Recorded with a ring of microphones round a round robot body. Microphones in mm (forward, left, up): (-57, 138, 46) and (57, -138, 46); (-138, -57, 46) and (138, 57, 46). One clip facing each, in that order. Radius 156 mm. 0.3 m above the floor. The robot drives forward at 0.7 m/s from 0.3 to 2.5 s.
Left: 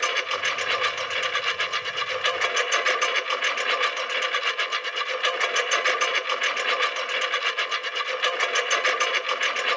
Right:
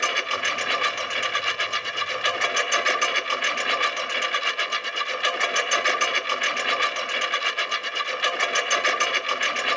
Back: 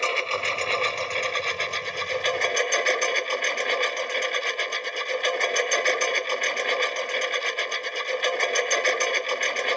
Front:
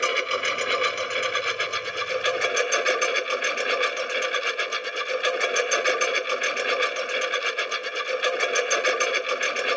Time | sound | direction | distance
0.0 | a lawn mower | 55° right | ?